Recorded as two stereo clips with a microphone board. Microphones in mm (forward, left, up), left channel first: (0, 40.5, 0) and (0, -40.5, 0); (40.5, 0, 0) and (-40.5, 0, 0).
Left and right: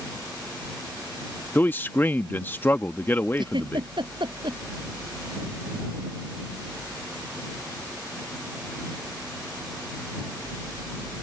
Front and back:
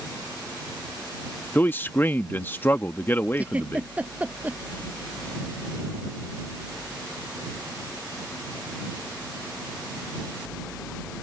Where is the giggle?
105° right.